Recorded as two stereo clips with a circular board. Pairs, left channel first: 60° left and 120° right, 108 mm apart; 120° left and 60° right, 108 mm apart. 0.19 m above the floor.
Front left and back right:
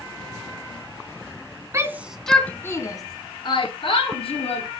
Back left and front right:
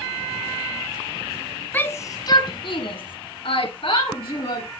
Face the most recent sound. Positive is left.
turn(degrees=85)